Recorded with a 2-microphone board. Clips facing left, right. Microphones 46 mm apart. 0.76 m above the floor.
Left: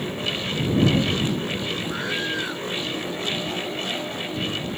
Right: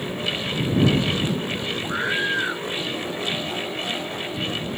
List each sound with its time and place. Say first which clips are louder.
1.8 s a scream: right 3 dB; 25° right (ahead or behind)